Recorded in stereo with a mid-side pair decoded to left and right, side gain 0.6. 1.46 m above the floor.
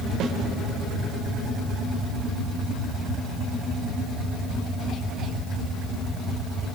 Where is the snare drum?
55° right, 4.5 m.